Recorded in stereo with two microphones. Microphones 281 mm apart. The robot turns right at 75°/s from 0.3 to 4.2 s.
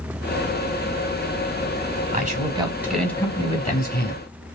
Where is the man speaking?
65° right, 1.7 m; by 4.2 s 90° left, 1.7 m.